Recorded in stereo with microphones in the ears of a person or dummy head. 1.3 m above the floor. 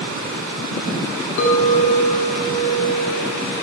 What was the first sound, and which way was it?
A clink, 55° left (ahead or behind).